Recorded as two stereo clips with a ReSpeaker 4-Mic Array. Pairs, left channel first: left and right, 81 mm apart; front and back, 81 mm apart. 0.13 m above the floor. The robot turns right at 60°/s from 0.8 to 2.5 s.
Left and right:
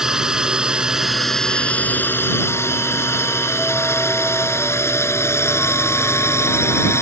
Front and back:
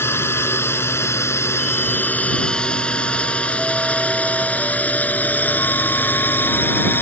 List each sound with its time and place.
0.0 s a drone: 15° right; by 7.0 s 55° left